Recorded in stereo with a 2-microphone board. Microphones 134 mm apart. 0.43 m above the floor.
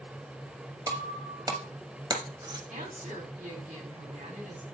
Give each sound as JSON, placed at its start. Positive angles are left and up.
{"t": 0.9, "sound": "breaking glass", "side_deg": -30, "distance_m": 1.0}
{"t": 2.7, "sound": "a woman speaking", "side_deg": -70, "distance_m": 2.5}